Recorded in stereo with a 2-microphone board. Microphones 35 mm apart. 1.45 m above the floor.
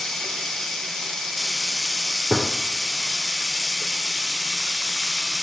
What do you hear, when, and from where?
0.0 s running water: 10° left (ahead or behind), 1.1 m
2.3 s a gunshot: 25° right (ahead or behind), 1.2 m